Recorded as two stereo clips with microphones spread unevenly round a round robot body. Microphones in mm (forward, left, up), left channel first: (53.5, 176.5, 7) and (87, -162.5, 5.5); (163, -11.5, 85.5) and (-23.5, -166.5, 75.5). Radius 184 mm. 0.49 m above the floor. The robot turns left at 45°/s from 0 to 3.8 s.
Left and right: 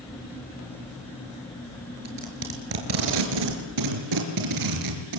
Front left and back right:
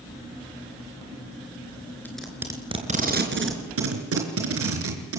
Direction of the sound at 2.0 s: 45° right.